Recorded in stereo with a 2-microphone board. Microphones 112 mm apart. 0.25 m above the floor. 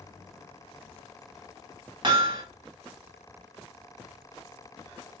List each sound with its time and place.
2.0 s hammering: 40° right (ahead or behind), 0.7 m